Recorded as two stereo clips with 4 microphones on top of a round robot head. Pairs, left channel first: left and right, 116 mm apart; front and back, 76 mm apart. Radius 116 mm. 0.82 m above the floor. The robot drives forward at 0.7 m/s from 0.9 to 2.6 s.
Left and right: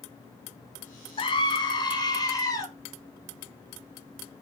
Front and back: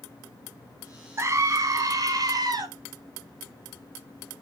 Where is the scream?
130° left, 1.5 m; by 2.7 s 150° left, 2.5 m.